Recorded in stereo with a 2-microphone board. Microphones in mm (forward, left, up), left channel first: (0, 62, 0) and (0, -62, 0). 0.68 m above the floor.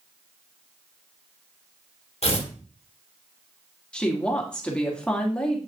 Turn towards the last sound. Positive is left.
turn(degrees=10)  # may be behind; listen again after turning